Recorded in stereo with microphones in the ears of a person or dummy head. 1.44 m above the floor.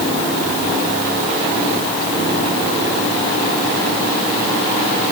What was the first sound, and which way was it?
Only background noise.